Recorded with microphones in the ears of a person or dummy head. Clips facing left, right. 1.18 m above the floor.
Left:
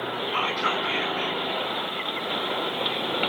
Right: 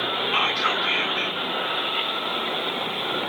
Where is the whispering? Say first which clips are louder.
Right 1 dB; 75° right (ahead or behind), 2.5 m.